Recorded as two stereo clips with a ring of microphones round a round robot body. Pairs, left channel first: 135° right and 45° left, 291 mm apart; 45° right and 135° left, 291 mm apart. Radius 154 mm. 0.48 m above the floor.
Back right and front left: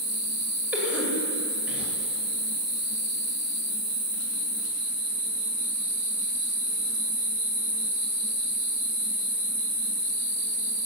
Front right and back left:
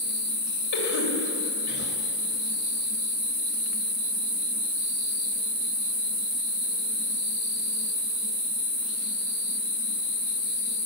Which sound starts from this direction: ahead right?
A cough, at 0.7 s.